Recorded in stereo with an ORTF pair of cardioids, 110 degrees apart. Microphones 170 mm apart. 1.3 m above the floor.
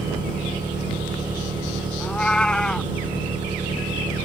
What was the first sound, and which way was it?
An engine running, 25° right.